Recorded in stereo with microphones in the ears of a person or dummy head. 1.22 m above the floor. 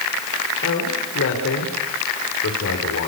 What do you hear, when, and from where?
0.6 s a man speaking: 60° left (ahead or behind), 4.5 m